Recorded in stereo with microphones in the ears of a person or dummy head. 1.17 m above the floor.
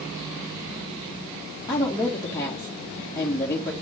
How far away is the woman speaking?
About 1.5 m.